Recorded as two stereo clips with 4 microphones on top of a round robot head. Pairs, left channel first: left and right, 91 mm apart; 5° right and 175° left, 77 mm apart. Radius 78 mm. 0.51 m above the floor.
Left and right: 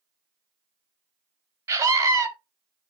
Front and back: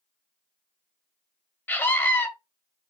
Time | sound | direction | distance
1.7 | a scream | 55° right | 1.5 m